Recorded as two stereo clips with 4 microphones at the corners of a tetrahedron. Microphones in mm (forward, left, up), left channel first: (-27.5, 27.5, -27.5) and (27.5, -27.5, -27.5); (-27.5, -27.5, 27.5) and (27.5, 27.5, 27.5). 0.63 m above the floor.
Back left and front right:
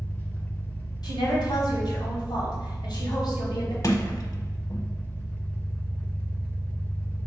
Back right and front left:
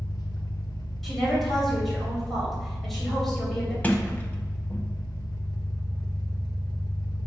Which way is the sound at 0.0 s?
160° right.